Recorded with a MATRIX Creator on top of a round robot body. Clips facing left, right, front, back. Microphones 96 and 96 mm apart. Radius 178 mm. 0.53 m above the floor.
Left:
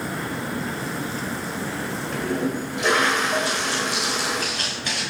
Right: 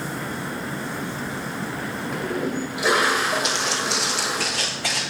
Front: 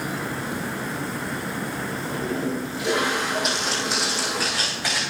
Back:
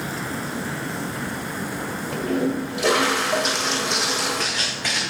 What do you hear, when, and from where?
2.1 s a toilet flushing: 170° right, 1.8 m
3.4 s footsteps: 90° right, 2 m; by 5.0 s 85° right, 4.5 m